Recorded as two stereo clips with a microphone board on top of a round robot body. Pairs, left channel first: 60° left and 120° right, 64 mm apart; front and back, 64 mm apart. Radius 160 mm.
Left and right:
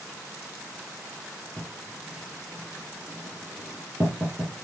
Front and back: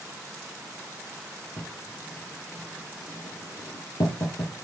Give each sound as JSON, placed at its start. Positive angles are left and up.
{"t": 1.6, "sound": "writing", "azimuth_deg": -45, "distance_m": 4.0}